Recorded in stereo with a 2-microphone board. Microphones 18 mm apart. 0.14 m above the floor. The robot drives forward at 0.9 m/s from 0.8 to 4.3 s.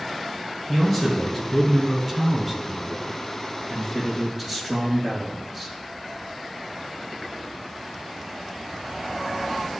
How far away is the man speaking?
About 1.7 m.